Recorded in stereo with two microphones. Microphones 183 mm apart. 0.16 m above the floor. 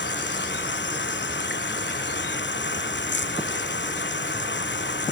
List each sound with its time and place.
0.0 s running water: 85° left